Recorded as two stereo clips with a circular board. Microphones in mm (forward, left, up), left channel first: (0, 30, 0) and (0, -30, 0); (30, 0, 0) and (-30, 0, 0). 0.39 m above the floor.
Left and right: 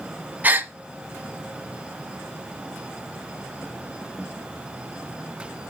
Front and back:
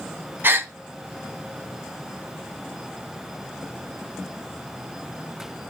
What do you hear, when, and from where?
0.4 s a gasp: 140° right, 0.6 m